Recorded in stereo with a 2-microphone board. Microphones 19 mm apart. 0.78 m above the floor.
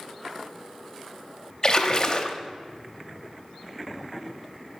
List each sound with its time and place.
1.6 s a splash: 30° left (ahead or behind), 0.6 m